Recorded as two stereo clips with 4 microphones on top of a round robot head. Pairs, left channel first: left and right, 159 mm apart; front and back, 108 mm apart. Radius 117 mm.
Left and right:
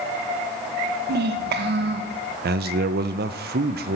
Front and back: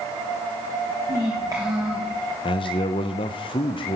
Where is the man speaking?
55° right, 0.6 m.